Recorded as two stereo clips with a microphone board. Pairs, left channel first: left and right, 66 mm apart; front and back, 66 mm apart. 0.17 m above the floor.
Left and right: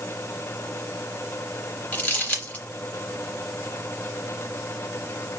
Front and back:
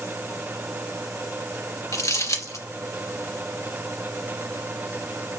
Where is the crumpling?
25° left, 3 m.